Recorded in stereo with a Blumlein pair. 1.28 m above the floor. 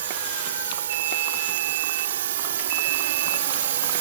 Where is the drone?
60° right; by 4.0 s 55° right.